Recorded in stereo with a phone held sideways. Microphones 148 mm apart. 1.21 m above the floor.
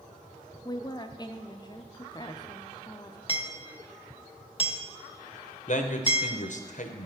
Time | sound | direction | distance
0.7 | a woman speaking | 30° left (ahead or behind) | 0.5 m
3.3 | hammering | 40° left (ahead or behind) | 0.7 m
5.7 | a man speaking | 55° left (ahead or behind) | 0.9 m